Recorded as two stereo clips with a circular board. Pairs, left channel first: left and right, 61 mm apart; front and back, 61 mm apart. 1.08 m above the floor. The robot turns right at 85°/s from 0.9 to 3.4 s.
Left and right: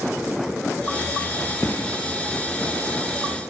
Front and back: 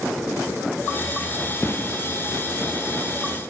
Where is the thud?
45° left, 2.5 m; by 1.9 s 70° left, 2.5 m.